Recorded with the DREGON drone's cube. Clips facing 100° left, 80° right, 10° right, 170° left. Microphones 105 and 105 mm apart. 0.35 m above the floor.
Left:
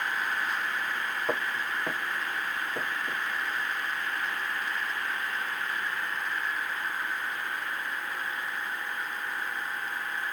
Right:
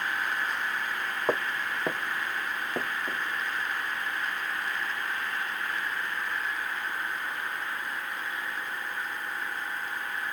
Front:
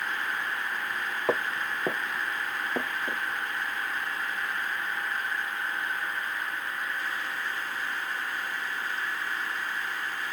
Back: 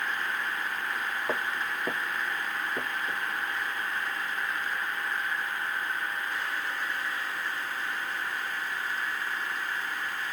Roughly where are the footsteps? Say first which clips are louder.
Right 3 dB, front 6 dB; ahead.